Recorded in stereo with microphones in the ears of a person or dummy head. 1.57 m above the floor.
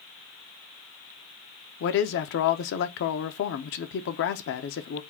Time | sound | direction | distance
1.8 | a man speaking | 55° left (ahead or behind) | 0.9 m